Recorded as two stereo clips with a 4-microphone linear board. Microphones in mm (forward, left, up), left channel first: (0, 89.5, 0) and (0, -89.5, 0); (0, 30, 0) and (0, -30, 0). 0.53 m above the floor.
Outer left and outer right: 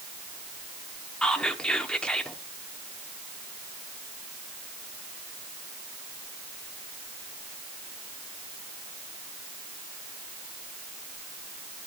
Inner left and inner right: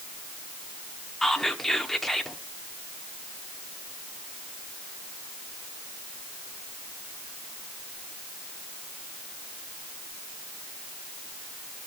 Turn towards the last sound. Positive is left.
turn(degrees=5)  # may be behind; listen again after turning